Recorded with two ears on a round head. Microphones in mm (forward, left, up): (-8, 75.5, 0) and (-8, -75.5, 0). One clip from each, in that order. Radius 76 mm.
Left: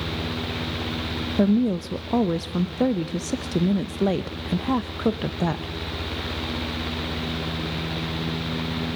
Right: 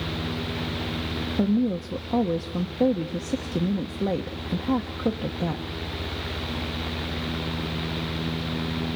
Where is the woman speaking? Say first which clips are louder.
Left 4 dB; 50° left (ahead or behind), 0.8 m.